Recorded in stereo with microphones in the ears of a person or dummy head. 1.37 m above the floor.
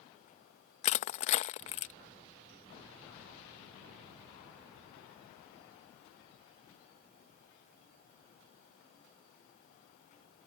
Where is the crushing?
50° left (ahead or behind).